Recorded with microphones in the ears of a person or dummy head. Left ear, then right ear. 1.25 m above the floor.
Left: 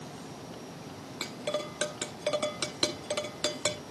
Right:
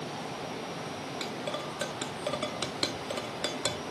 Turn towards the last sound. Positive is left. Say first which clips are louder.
# left 4 dB
turn(degrees=5)  # may be behind; listen again after turning